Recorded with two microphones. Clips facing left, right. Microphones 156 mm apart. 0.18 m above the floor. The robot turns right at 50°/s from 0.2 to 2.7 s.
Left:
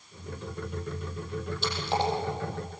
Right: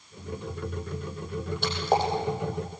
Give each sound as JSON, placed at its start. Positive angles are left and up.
{"t": 1.6, "sound": "a splash", "side_deg": -60, "distance_m": 6.5}